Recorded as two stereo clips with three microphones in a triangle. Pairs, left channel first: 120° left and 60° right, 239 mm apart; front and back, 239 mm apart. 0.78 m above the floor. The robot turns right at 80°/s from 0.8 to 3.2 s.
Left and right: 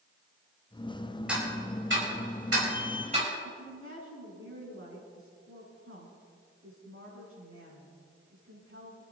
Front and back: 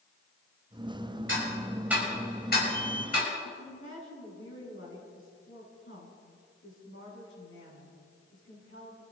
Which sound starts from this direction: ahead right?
A woman speaking, at 3.4 s.